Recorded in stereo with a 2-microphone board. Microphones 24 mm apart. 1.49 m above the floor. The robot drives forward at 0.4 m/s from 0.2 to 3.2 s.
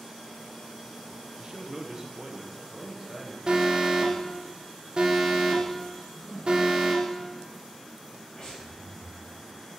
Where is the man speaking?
40° right (ahead or behind), 0.8 m; by 3.4 s 20° right (ahead or behind), 1.4 m.